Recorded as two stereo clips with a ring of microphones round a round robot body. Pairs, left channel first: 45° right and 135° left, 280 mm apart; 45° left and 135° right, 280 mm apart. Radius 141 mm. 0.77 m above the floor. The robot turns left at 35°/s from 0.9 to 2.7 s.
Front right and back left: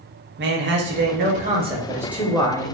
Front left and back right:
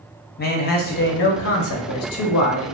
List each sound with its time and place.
0.4 s a man speaking: 95° left, 0.6 m; by 2.8 s 30° left, 0.6 m